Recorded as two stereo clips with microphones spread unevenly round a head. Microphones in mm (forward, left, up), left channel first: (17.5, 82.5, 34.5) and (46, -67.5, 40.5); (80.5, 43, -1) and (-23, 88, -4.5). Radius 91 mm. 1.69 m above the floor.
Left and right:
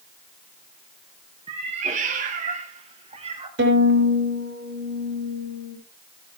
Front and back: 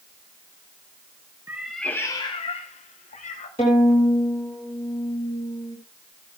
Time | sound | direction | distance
1.5 | a cat meowing | 130° right | 1.1 m
3.6 | a violin | 85° right | 5.5 m